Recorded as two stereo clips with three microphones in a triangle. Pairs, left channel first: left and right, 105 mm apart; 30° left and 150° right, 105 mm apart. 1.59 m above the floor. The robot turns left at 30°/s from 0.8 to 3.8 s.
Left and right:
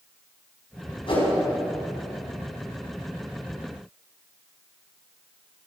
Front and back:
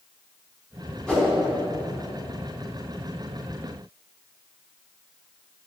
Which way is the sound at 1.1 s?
115° left.